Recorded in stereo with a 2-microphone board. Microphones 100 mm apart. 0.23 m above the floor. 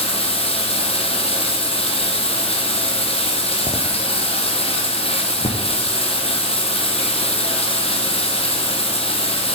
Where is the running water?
80° left, 2.5 m.